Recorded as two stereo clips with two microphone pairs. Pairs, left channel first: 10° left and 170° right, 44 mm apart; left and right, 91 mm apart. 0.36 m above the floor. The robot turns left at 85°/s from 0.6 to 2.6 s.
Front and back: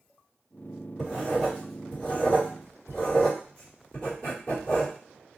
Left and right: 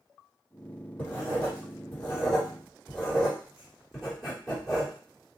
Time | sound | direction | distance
1.0 | writing | 140° left | 1.6 m